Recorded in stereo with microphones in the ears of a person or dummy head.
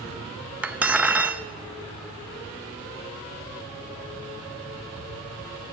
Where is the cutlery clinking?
10° right (ahead or behind), 0.6 m.